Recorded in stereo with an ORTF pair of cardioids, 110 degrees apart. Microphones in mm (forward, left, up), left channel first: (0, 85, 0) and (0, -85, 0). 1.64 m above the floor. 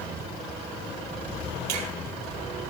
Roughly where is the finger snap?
Right.